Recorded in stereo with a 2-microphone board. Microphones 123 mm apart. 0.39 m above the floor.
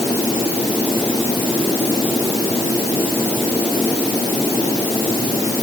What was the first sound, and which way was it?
Only background noise.